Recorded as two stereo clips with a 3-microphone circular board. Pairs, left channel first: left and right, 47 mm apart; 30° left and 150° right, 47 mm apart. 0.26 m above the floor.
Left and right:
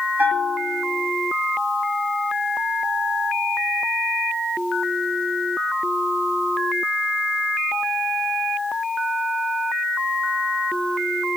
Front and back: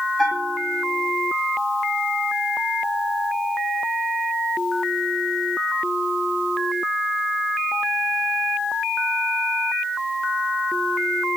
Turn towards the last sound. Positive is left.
turn(degrees=-55)